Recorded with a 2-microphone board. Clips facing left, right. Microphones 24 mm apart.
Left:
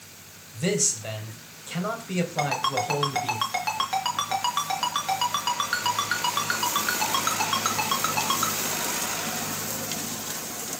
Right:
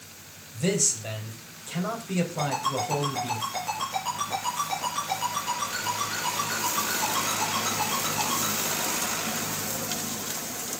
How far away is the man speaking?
About 3 m.